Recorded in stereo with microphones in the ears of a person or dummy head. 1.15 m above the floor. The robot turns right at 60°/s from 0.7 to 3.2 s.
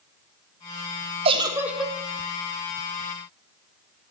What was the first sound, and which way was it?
A giggle, 35° right.